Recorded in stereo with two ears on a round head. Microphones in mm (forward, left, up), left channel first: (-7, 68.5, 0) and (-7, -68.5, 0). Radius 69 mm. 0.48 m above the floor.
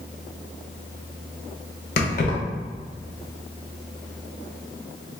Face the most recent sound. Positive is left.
turn(degrees=65)  # may be behind; listen again after turning